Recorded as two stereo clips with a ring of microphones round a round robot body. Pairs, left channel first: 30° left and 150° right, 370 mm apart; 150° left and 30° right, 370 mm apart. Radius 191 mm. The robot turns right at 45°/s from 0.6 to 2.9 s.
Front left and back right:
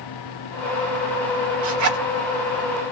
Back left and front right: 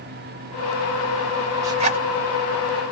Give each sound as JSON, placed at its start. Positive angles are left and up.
{"t": 1.6, "sound": "a zipper", "azimuth_deg": -110, "distance_m": 0.9}